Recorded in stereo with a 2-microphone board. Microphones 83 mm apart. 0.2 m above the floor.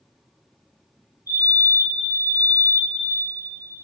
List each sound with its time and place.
1.3 s a fire alarm: 50° left (ahead or behind), 3.5 m